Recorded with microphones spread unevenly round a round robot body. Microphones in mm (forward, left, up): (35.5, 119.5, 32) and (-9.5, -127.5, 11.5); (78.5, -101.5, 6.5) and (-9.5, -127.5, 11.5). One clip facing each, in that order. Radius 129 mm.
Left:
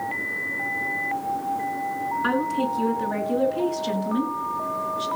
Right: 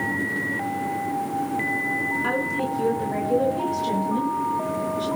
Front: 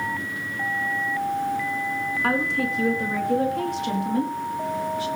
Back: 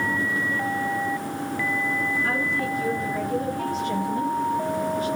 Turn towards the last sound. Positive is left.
turn(degrees=15)